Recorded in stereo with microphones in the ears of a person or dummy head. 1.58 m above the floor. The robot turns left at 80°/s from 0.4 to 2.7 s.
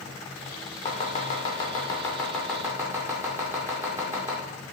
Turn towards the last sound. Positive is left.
turn(degrees=-10)  # may be behind; listen again after turning